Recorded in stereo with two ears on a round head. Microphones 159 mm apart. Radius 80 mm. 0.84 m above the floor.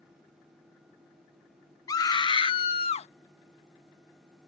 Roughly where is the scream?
Centre.